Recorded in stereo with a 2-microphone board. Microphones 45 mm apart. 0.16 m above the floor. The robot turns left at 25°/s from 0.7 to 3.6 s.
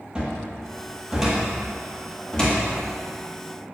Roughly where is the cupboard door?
Centre.